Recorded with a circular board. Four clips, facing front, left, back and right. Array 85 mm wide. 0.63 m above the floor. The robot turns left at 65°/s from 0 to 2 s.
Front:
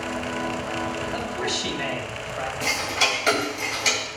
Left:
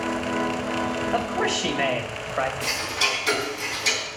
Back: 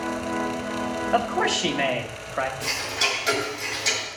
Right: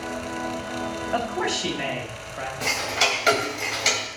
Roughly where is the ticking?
Ahead right.